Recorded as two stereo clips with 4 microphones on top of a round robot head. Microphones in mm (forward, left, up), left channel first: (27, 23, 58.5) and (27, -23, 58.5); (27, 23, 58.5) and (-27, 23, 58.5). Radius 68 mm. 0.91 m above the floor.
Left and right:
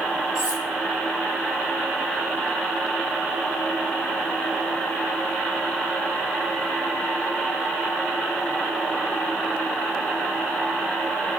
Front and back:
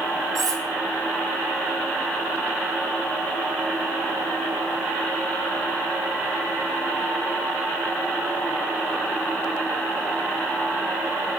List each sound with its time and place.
0.3 s cutlery clinking: 165° right, 2.5 m